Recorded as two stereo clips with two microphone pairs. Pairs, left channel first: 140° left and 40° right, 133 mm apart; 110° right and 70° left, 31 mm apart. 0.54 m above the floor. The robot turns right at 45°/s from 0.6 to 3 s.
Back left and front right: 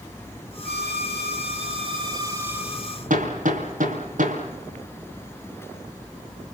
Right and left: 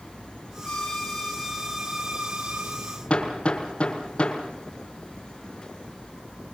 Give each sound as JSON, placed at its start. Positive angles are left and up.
{"t": 0.7, "sound": "a violin", "azimuth_deg": -55, "distance_m": 2.0}
{"t": 3.1, "sound": "hammering", "azimuth_deg": -55, "distance_m": 5.5}